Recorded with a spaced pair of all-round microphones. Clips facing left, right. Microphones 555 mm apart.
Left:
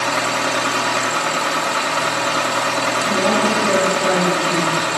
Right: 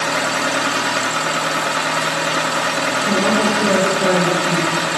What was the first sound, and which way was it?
A machine running, 40° right (ahead or behind).